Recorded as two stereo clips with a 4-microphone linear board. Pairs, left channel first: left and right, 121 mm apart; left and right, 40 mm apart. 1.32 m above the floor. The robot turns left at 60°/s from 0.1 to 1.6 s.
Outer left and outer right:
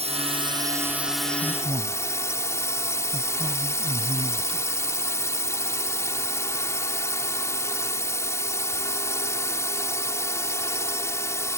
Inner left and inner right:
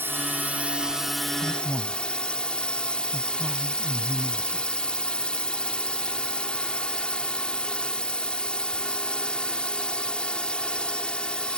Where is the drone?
115° right; by 11.6 s 155° left.